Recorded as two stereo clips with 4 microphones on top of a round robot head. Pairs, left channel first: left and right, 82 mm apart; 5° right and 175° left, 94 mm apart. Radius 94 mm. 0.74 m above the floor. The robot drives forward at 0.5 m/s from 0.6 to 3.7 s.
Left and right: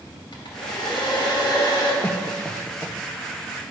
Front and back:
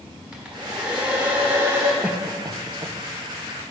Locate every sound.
0.3 s a hair dryer: 95° left, 2.5 m; by 1.9 s 115° left, 2.5 m
2.0 s a cough: 125° left, 0.6 m; by 3.0 s 160° left, 0.9 m